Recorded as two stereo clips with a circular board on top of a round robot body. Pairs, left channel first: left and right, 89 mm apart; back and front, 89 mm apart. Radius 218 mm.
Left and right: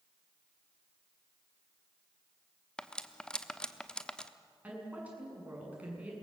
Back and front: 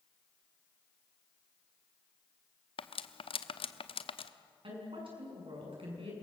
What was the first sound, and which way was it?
Cutlery clinking, 170° left.